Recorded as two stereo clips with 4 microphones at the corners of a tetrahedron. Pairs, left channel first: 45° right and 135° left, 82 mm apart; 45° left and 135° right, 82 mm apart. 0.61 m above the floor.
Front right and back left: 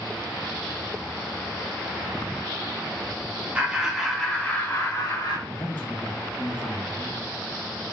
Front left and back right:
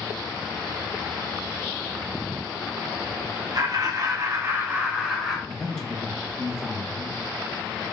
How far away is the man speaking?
About 0.7 m.